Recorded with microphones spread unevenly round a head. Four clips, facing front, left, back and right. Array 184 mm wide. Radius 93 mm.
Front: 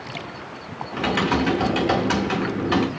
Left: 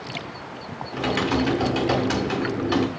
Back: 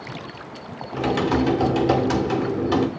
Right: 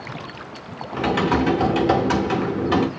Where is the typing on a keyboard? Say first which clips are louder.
Right 3 dB, back 1 dB; 85° right, 0.6 m.